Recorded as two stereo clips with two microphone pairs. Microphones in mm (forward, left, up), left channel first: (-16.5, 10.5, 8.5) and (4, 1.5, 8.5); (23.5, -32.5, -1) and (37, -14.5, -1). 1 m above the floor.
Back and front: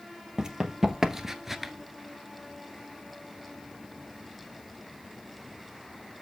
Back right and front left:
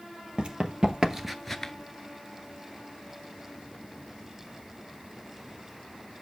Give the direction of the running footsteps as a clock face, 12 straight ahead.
11 o'clock.